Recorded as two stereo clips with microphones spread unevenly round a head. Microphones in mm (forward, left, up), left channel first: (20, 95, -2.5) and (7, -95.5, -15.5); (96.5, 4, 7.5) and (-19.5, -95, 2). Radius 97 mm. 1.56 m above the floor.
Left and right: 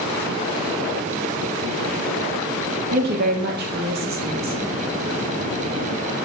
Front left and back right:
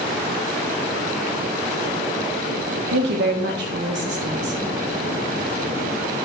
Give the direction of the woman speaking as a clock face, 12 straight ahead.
5 o'clock.